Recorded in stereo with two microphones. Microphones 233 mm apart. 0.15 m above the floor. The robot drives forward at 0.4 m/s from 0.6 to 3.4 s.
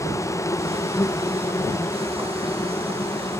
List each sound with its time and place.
0.0 s an insect: 10° left (ahead or behind)